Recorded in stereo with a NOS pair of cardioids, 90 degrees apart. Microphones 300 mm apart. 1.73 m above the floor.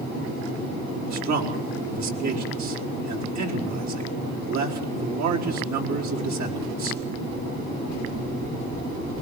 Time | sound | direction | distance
1.1 | a man speaking | 65° right | 4.5 m